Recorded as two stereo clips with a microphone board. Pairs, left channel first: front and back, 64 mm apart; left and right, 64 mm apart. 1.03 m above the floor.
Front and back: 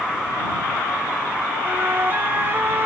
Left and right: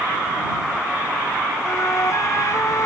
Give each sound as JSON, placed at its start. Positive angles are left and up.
{"t": 1.6, "sound": "a flute", "azimuth_deg": 125}